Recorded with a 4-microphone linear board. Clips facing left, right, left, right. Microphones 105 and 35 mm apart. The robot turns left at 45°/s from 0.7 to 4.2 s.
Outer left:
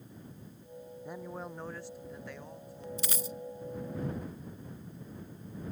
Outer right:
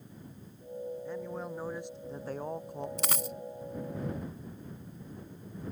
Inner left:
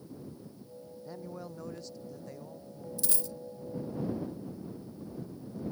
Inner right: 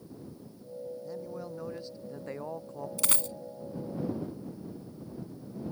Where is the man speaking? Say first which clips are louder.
Outer right 4 dB, inner right 4 dB; 15° left; by 2.9 s 65° right.